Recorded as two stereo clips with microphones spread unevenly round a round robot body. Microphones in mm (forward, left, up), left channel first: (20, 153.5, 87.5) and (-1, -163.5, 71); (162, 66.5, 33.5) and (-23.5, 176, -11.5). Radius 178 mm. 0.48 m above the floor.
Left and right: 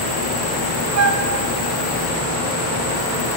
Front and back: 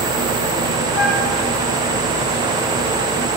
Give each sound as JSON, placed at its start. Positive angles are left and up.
{"t": 0.9, "sound": "a flute", "azimuth_deg": -80, "distance_m": 1.1}